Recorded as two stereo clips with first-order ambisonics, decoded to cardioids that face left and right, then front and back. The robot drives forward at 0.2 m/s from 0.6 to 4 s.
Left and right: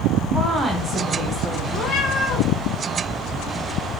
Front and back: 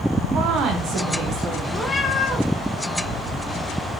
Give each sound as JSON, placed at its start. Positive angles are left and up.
{"t": 0.3, "sound": "a woman speaking", "azimuth_deg": -160, "distance_m": 0.7}
{"t": 1.7, "sound": "a cat meowing", "azimuth_deg": 65, "distance_m": 0.5}